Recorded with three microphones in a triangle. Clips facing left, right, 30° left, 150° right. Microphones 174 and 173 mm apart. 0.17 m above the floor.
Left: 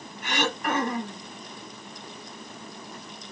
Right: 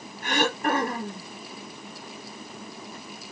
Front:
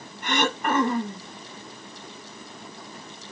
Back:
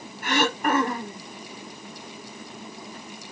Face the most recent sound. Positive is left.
turn(degrees=-70)